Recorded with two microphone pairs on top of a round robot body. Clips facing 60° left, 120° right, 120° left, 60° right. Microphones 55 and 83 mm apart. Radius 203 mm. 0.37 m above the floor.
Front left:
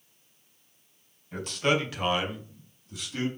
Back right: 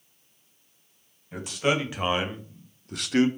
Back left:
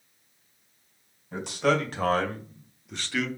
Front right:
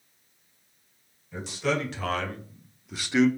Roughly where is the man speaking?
Behind left.